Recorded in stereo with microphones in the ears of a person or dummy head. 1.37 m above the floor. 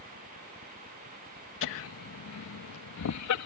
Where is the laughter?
60° left (ahead or behind); by 3.5 s 80° left.